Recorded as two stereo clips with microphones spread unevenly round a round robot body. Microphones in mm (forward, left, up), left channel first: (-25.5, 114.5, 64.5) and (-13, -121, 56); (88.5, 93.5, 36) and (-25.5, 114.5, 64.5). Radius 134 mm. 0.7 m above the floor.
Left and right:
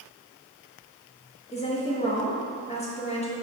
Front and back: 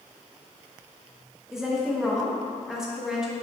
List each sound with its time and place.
1.5 s a woman speaking: 60° left, 0.8 m